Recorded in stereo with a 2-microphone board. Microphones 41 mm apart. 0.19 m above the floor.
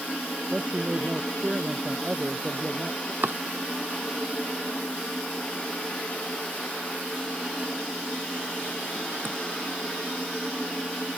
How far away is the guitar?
I don't hear a guitar.